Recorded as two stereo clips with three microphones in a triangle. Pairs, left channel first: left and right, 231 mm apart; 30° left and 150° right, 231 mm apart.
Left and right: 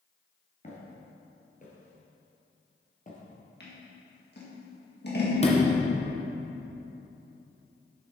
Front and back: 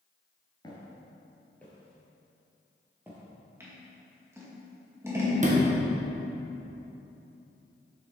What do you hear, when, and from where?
0.6 s footsteps: 80° left, 1.8 m; by 3.2 s 135° left, 2.5 m
3.6 s scissors: 130° left, 1.7 m
5.4 s a sliding door: 155° left, 1.2 m